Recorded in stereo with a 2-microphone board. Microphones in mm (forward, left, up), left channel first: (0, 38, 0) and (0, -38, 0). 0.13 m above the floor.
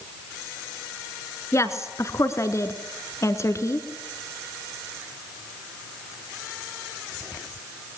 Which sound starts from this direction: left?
A woman speaking, at 1.5 s.